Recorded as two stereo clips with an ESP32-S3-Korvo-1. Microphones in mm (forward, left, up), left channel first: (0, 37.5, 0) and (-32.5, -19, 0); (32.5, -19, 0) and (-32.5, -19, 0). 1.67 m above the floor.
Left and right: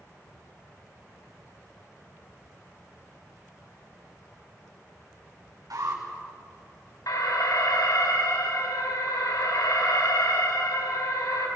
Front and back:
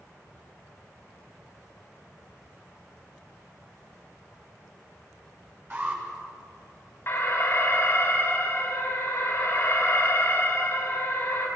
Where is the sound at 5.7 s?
130° right, 6.5 m.